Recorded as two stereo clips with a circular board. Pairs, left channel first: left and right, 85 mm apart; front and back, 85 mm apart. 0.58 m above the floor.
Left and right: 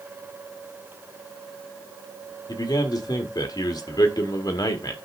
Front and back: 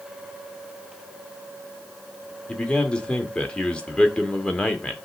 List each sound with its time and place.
2.5 s a man speaking: 75° left, 1.7 m